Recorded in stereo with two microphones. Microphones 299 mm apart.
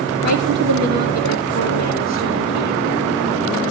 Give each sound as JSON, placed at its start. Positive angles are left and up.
{"t": 0.2, "sound": "a woman speaking", "side_deg": -65, "distance_m": 4.0}